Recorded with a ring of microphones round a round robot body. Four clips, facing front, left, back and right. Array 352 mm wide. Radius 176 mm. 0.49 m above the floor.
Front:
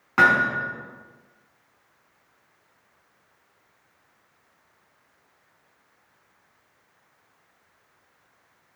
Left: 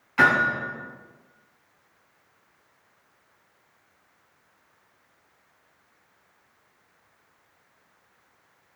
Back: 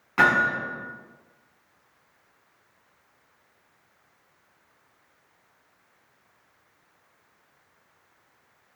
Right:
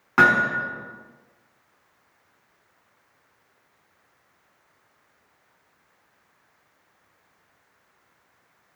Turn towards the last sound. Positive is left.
turn(degrees=-65)